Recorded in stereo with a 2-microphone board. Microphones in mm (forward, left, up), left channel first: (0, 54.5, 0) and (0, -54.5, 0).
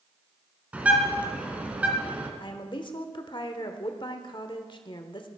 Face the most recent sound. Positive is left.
turn(degrees=45)  # may be behind; listen again after turning